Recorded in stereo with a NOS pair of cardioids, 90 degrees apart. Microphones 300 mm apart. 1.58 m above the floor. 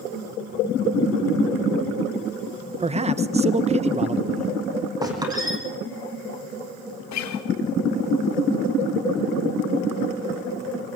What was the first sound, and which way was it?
A man speaking, 20° right.